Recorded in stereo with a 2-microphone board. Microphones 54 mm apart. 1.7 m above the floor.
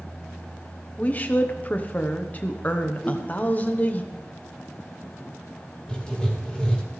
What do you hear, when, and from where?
1.0 s a woman speaking: 30° left (ahead or behind), 1.0 m
3.0 s a whoosh: 10° left (ahead or behind), 4 m
5.9 s writing: 15° left (ahead or behind), 2.5 m